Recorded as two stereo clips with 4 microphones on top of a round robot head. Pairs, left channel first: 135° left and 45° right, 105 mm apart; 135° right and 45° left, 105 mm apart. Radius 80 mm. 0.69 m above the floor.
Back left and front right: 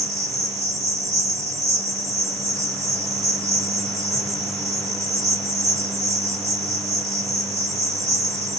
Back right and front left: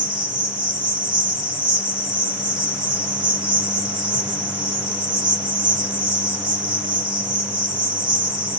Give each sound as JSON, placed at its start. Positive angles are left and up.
{"t": 0.0, "sound": "an insect", "azimuth_deg": 10, "distance_m": 2.0}